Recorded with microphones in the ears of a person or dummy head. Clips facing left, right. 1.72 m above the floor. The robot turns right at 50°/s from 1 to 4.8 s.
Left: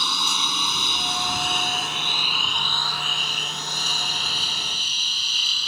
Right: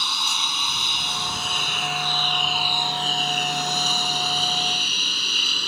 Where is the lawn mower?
80° left; by 5.7 s 45° right (ahead or behind).